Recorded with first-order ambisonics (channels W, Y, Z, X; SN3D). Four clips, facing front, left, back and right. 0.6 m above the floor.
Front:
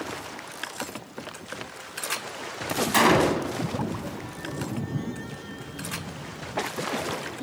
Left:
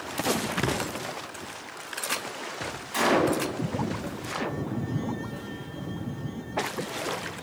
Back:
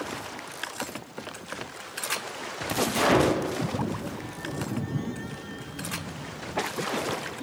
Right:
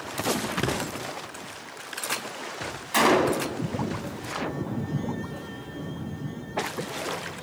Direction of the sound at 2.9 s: 25° right.